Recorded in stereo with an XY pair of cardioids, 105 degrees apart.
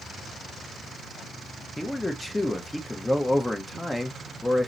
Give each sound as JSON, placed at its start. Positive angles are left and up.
{"t": 1.8, "sound": "a man speaking", "azimuth_deg": 5, "distance_m": 0.8}